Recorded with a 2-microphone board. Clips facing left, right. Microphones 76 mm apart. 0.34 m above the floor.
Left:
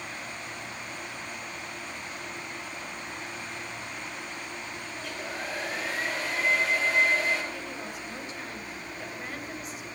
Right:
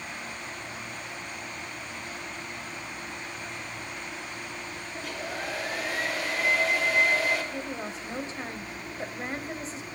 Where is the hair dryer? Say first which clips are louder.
Right 2 dB; centre (ahead or behind), 6.5 m.